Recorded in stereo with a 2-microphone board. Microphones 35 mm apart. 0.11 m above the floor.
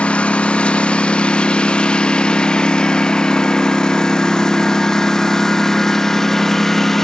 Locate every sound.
0.0 s a lawn mower: 35° left (ahead or behind); by 7.0 s 10° left (ahead or behind)